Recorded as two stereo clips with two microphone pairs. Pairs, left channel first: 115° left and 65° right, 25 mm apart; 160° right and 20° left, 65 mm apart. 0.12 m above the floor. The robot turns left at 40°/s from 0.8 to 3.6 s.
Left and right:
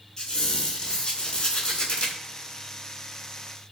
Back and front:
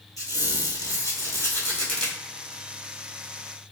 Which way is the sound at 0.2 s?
175° left.